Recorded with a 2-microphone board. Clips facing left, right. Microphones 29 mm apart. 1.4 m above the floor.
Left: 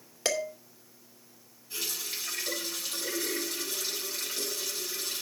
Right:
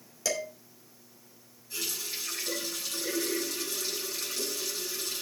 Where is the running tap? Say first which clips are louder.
Even; 15° left (ahead or behind), 7 m.